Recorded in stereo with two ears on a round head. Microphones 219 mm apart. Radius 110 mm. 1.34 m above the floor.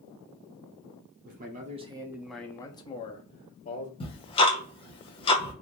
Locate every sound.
1.2 s a man speaking: 35° right (ahead or behind), 0.6 m; by 3.9 s 35° left (ahead or behind), 1.0 m
4.0 s ticking: 25° left (ahead or behind), 0.8 m